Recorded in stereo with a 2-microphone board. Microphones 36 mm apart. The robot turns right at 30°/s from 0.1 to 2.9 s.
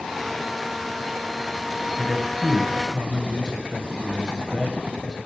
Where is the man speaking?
10° right (ahead or behind), 1.3 m; by 5.2 s 15° right (ahead or behind), 1.3 m.